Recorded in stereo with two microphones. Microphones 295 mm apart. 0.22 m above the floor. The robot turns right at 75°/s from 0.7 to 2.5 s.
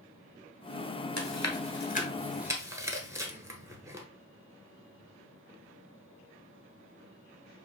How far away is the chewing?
About 1.1 m.